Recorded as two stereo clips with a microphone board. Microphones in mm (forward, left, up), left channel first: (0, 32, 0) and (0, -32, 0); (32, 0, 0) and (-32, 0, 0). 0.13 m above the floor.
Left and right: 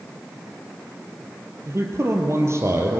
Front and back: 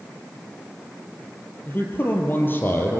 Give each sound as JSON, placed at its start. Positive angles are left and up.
{"t": 1.7, "sound": "a man speaking", "azimuth_deg": -50, "distance_m": 2.5}